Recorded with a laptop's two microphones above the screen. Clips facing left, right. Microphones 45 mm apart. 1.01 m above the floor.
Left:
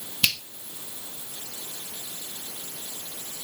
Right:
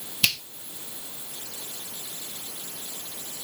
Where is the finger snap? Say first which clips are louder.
Even; 5° left (ahead or behind), 1.3 m.